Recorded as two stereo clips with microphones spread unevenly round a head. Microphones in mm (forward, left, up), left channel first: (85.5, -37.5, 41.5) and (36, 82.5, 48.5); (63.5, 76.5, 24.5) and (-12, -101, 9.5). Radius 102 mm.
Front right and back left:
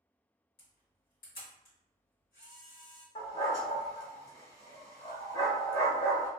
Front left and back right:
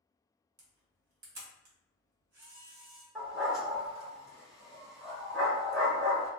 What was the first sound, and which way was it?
A camera shutter, 95° right.